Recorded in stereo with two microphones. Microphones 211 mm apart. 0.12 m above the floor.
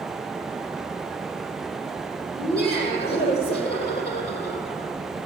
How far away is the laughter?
About 3 m.